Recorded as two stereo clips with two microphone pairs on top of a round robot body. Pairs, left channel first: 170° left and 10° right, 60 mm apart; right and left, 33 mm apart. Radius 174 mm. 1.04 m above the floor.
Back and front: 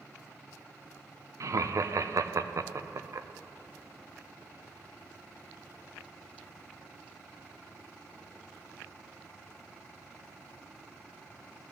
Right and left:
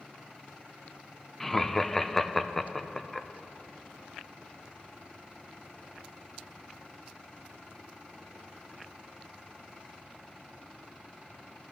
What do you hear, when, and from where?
1.4 s laughter: 15° right, 0.7 m